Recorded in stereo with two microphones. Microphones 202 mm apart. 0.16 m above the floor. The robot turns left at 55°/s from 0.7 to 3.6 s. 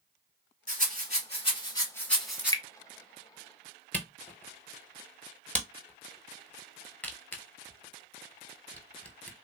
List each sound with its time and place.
0.7 s a rattle: 40° left (ahead or behind), 1.4 m; by 2.5 s 10° right (ahead or behind), 1.4 m
2.4 s dripping: 25° left (ahead or behind), 0.6 m; by 2.6 s 15° left (ahead or behind), 0.6 m
3.9 s a camera shutter: 10° left (ahead or behind), 0.8 m